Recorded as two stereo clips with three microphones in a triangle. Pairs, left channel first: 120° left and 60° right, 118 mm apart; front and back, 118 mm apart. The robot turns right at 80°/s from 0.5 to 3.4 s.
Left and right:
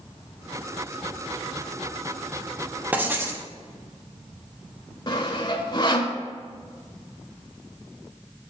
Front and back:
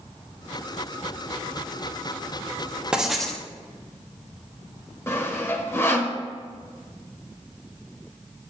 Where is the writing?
110° right, 1.0 m; by 3.5 s 70° right, 1.0 m.